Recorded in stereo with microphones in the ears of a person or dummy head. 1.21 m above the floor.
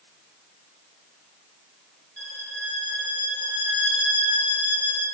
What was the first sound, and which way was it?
A violin, 10° right (ahead or behind).